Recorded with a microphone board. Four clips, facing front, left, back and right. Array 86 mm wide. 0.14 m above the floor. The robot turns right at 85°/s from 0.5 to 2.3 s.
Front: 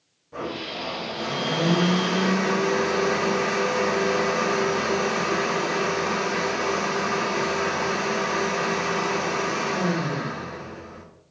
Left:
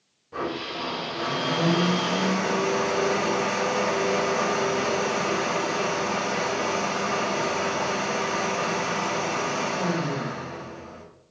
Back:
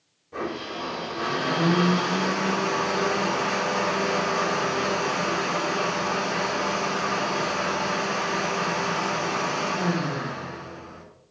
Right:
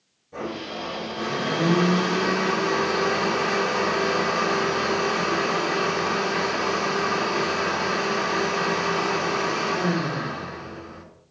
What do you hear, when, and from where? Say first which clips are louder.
0.3 s a blender: left 1 dB, back 1 dB; 95° left, 2 m; by 11.1 s 115° right, 2 m